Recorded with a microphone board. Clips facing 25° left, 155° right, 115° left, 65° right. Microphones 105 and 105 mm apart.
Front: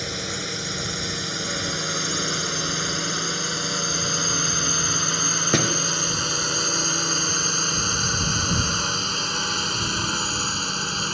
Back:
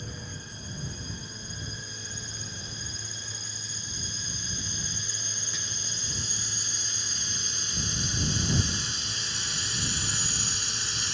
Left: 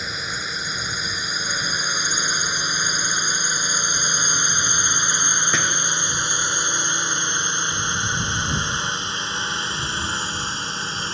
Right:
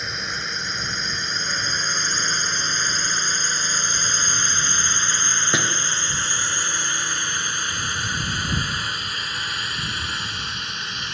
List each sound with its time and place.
0.0 s a drone: 25° left; by 11.1 s 55° left
5.5 s a door slam: 10° left